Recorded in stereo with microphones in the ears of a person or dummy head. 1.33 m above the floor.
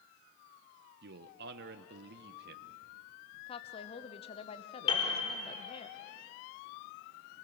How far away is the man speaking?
About 0.9 m.